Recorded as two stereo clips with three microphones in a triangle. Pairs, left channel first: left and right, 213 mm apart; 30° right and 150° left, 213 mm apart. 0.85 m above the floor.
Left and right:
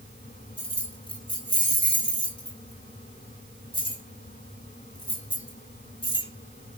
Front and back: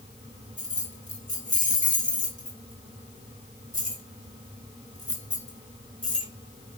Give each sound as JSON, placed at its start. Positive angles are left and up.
{"t": 0.6, "sound": "keys jangling", "azimuth_deg": 25, "distance_m": 2.5}